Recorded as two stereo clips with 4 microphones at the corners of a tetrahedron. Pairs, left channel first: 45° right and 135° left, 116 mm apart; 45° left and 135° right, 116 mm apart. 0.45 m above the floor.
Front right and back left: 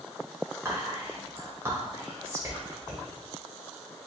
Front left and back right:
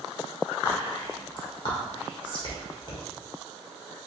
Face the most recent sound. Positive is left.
turn(degrees=75)